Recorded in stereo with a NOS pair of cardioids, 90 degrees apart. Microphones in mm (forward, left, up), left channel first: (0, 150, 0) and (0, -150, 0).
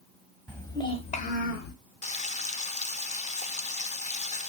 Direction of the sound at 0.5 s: Straight ahead.